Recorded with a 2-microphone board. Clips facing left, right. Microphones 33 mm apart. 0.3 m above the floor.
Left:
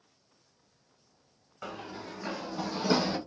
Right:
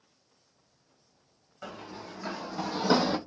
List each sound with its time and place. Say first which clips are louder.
1.6 s running footsteps: left 1 dB; 10° left (ahead or behind), 1.1 m; by 3.2 s 50° right (ahead or behind), 0.6 m